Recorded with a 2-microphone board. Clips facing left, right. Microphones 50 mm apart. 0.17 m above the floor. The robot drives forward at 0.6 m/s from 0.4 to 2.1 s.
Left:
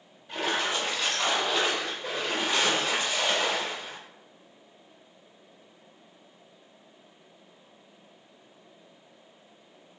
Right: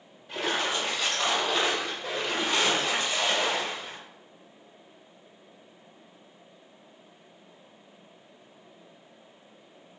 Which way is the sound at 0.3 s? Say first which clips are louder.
Even; centre (ahead or behind).